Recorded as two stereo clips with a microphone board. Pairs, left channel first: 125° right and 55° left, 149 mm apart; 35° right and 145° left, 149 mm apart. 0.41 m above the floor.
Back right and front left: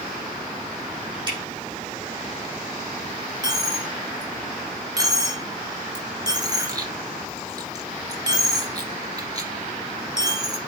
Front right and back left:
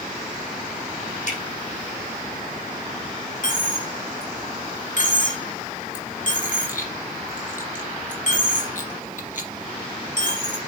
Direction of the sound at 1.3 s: 5° right.